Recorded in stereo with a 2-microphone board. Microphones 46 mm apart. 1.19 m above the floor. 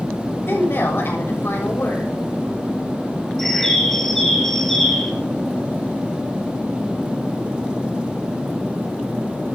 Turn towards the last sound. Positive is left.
turn(degrees=5)  # may be behind; listen again after turning